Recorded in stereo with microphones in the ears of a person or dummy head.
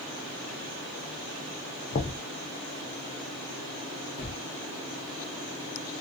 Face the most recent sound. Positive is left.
turn(degrees=55)  # may be behind; listen again after turning